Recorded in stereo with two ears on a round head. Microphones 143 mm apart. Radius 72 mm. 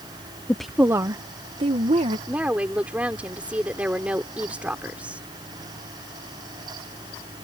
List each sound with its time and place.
0.5 s a woman speaking: 10° left (ahead or behind); by 2.2 s 40° right (ahead or behind)
2.3 s a woman speaking: 10° right (ahead or behind)